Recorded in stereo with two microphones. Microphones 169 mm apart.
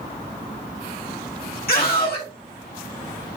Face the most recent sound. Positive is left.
turn(degrees=65)  # may be behind; listen again after turning